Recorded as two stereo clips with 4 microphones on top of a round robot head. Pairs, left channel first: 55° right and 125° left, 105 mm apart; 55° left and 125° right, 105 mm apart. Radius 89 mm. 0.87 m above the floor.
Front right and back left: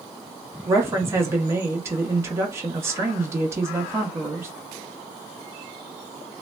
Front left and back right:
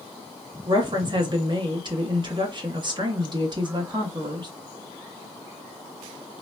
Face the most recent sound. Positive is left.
turn(degrees=-170)